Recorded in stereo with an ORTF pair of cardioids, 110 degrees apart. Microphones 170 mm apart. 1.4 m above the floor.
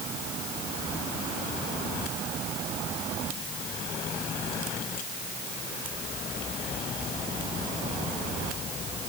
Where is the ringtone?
No ringtone in this recording.